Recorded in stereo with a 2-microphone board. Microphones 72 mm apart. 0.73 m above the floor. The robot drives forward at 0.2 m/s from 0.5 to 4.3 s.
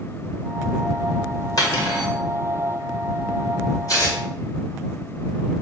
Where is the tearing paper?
50° left (ahead or behind), 1.6 m.